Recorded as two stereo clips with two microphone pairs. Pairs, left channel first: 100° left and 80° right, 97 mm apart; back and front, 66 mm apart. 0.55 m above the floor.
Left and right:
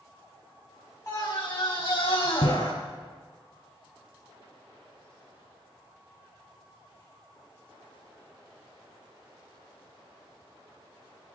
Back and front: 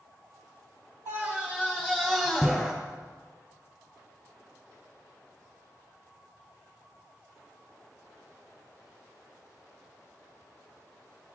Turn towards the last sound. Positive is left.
turn(degrees=85)